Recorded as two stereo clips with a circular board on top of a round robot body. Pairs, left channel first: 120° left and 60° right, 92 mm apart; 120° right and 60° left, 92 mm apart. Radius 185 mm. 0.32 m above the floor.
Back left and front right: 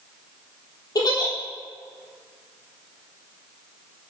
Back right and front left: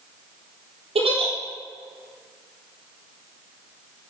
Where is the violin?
I don't hear a violin.